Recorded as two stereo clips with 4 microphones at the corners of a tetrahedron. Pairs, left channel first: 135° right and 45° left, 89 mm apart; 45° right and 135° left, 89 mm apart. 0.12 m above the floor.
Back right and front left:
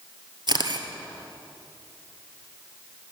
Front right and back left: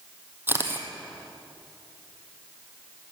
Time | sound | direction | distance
0.5 | a camera shutter | 70° left | 1.3 m